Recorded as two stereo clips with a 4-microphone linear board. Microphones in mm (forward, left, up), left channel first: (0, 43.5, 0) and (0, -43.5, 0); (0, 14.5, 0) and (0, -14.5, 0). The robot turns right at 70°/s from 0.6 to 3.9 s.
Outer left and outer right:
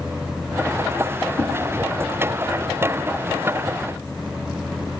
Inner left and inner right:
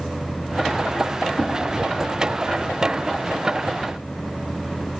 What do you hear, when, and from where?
1.4 s a whoosh: 35° left (ahead or behind), 0.8 m; by 1.5 s 40° left (ahead or behind), 0.8 m